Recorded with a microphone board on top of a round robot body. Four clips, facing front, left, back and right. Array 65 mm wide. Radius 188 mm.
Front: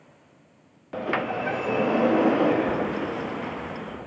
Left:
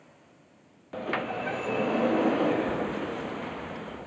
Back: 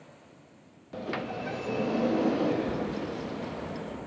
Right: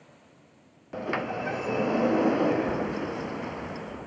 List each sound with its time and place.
0.9 s a sliding door: 10° right